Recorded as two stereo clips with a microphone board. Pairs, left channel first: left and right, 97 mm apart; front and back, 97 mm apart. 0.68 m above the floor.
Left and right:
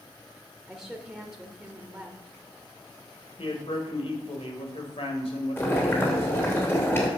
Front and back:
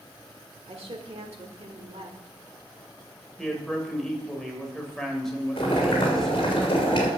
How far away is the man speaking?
About 3 m.